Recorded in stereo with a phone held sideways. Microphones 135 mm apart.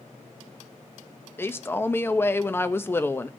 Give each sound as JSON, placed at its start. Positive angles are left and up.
{"t": 1.4, "sound": "a man speaking", "side_deg": 15, "distance_m": 0.6}